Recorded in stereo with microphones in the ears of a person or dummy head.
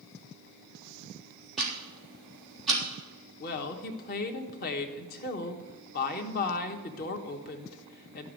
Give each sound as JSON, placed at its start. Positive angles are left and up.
{"t": 1.6, "sound": "ticking", "side_deg": 0, "distance_m": 3.5}
{"t": 3.4, "sound": "a woman speaking", "side_deg": 50, "distance_m": 1.3}